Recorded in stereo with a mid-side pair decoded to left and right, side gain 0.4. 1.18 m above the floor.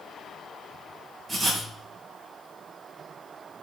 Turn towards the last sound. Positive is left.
turn(degrees=-45)